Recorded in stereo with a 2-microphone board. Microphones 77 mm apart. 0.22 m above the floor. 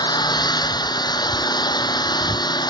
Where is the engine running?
65° left (ahead or behind).